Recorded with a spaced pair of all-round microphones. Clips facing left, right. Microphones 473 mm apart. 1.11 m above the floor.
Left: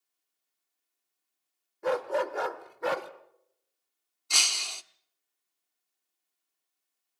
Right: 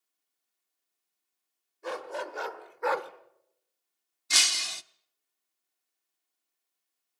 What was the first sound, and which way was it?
A dog barking, 70° left (ahead or behind).